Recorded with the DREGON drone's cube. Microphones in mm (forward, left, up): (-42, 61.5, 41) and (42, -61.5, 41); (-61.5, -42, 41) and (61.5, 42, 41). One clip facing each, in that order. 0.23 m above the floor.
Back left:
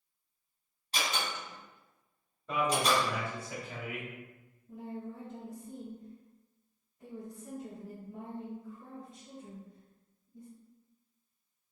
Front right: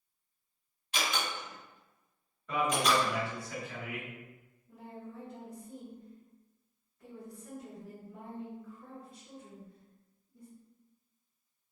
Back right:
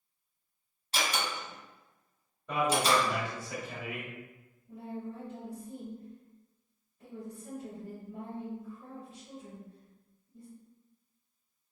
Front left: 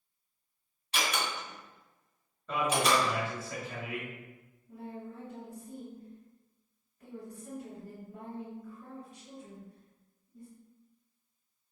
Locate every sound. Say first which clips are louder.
0.9 s a door slam: even, even; 165° left, 1.6 m
2.5 s a man speaking: even, back right 1 dB; 155° left, 1.3 m
4.7 s a woman speaking: back left 5 dB, back right 3 dB; 175° left, 1.8 m